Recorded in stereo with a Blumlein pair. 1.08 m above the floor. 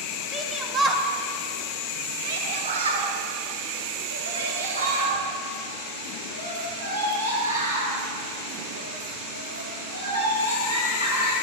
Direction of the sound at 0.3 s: 5° left.